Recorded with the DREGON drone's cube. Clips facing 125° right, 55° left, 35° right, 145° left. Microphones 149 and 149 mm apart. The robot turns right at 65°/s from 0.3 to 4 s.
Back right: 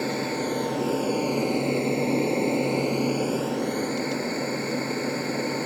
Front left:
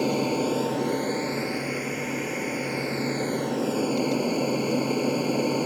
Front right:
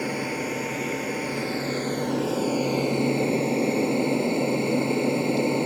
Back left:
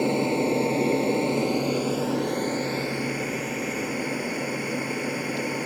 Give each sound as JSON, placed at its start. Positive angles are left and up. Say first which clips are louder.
{"t": 0.0, "sound": "an aircraft", "louder": "front left 3 dB, back left 6 dB", "azimuth_deg": 115}